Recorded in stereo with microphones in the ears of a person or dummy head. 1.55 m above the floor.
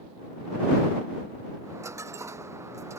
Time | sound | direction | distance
1.6 | a dropped coin | 10° right (ahead or behind) | ?